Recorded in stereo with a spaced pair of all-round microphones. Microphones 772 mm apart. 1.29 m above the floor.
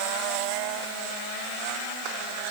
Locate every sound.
Only background noise.